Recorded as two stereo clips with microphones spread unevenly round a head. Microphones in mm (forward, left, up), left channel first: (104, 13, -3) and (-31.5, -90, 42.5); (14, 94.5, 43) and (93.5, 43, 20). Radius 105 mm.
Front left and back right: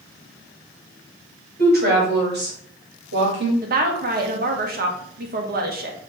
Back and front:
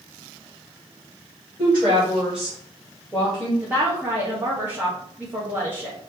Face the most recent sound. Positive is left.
turn(degrees=-105)